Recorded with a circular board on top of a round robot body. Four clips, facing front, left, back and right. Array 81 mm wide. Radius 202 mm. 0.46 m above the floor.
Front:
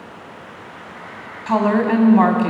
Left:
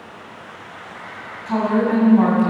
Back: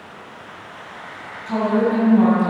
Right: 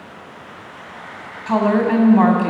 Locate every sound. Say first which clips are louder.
1.5 s a woman speaking: right 2 dB, front 2 dB; 40° right, 2 m